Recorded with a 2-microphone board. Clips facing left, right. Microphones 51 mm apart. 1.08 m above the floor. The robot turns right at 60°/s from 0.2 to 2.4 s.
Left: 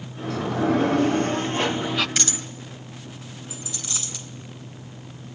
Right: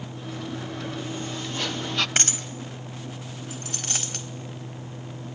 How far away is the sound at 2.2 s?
About 1.9 m.